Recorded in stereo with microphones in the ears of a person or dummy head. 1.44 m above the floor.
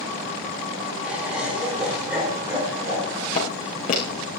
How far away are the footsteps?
About 5.5 m.